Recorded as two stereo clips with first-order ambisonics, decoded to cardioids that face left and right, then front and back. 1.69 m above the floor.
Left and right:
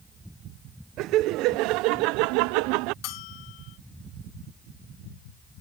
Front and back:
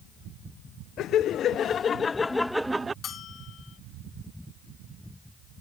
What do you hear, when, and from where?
1.0 s laughter: 50° right; by 2.9 s 105° right
3.0 s a bell: 60° left